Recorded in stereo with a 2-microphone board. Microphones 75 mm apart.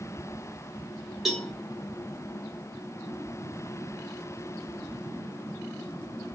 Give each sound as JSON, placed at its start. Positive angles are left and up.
{"t": 1.2, "sound": "a cowbell", "side_deg": 0, "distance_m": 1.5}